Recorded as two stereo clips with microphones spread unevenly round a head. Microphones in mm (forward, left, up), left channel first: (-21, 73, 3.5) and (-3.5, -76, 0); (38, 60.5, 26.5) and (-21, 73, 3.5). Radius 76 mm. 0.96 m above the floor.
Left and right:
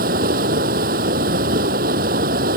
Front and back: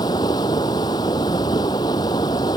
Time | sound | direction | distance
0.0 | running water | 50° right | ?